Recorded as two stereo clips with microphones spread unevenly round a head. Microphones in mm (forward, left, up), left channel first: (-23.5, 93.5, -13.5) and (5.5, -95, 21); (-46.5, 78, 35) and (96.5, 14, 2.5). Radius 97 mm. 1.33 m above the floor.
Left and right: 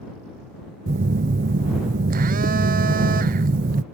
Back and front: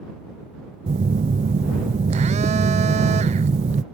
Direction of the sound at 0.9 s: 35° right.